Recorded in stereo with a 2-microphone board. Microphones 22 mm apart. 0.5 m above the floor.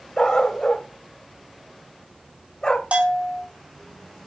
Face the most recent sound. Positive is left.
turn(degrees=-75)  # may be behind; listen again after turning